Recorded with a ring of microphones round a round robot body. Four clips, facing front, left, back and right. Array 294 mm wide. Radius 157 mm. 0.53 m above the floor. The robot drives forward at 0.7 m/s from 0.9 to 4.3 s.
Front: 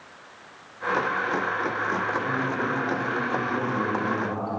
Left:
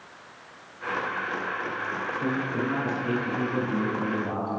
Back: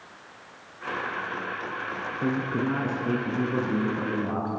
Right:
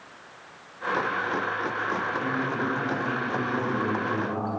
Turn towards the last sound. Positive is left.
turn(degrees=165)